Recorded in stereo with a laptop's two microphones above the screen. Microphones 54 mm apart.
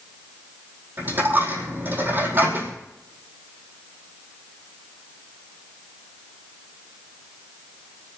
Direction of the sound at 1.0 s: 40° right (ahead or behind).